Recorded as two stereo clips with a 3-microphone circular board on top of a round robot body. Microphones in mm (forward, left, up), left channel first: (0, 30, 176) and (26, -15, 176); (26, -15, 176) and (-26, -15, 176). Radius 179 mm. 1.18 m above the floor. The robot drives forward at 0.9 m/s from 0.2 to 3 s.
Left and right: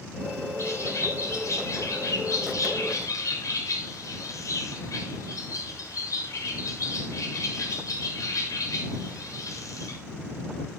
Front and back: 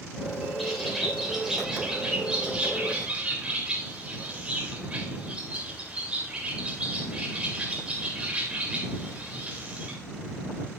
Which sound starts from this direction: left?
A bird, at 0.6 s.